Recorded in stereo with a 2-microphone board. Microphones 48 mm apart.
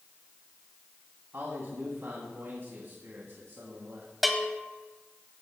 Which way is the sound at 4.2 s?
Centre (ahead or behind).